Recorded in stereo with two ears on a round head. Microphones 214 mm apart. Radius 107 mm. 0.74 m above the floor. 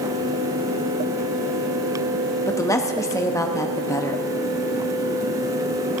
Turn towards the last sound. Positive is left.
turn(degrees=15)  # may be behind; listen again after turning